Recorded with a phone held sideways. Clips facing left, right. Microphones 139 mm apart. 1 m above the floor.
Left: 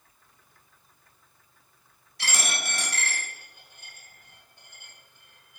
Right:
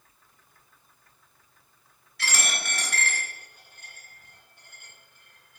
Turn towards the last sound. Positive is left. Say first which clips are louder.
# even
turn(degrees=20)  # may be behind; listen again after turning